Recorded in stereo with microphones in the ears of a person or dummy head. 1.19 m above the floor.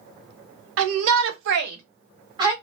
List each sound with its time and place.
0.8 s a shout: 85° right, 0.9 m; by 2.5 s 20° right (ahead or behind), 0.9 m